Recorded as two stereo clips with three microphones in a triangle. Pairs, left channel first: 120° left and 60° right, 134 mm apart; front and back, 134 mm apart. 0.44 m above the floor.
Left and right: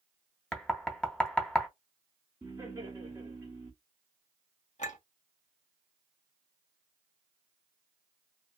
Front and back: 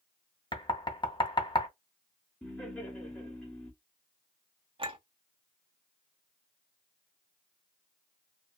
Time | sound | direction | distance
0.5 | knocking | 40° left | 0.8 m
2.4 | laughter | 60° right | 1.0 m
4.8 | a clink | 140° left | 1.1 m